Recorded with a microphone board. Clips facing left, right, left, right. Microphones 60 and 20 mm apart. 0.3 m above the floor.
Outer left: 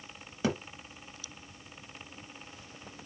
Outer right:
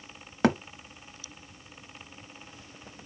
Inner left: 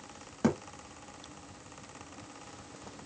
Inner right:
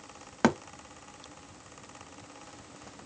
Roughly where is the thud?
Right.